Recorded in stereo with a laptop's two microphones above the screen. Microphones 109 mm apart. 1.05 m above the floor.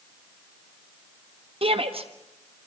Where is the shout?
60° right (ahead or behind), 1.4 m.